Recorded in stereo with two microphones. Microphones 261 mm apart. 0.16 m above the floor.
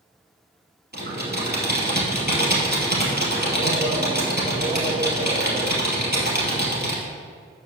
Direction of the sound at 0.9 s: 40° right (ahead or behind).